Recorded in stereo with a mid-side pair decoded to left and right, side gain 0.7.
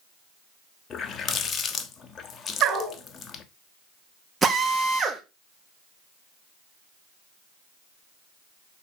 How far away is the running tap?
About 1.2 m.